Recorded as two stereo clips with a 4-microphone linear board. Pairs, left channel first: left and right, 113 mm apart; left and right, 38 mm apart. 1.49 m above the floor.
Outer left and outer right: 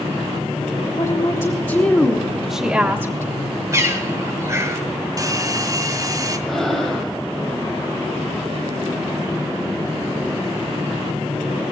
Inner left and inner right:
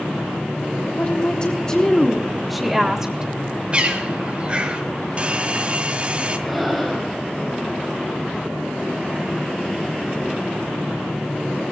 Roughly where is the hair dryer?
Right.